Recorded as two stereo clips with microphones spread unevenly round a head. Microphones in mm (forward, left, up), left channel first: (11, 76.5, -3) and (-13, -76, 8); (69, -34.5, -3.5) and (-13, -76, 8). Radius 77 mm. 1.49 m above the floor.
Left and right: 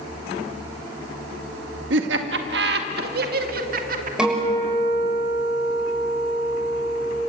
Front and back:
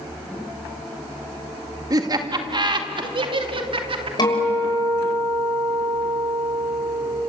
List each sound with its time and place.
1.9 s laughter: 105° right, 2 m; by 4.1 s 135° right, 3 m
4.2 s a guitar: 15° right, 6.5 m